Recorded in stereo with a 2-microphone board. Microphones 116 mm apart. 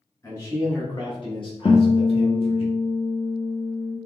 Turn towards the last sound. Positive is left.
turn(degrees=40)  # may be behind; listen again after turning